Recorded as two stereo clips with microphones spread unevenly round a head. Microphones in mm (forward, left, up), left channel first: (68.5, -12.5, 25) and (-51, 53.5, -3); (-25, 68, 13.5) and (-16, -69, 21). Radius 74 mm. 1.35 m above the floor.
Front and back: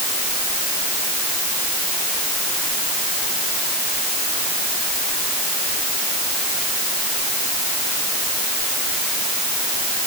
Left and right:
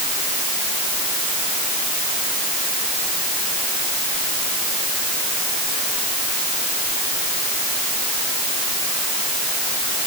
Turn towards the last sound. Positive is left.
No sound to turn to.